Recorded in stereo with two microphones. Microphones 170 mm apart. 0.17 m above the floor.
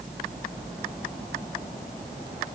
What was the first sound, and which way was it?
Only background noise.